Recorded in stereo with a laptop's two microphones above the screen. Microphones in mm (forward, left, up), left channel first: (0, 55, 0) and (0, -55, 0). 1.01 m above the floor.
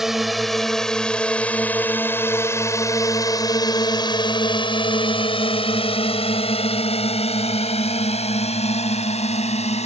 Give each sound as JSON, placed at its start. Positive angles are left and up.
{"t": 0.0, "sound": "a drone", "side_deg": 0}